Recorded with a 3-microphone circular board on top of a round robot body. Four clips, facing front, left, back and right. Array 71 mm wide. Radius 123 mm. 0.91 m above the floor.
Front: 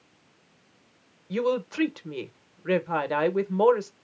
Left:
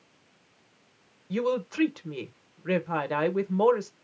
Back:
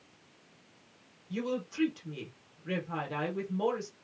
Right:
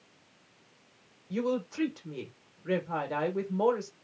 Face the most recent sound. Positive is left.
turn(degrees=35)